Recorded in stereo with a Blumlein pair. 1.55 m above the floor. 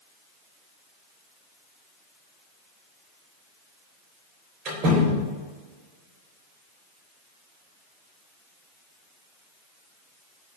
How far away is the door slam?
About 3.5 m.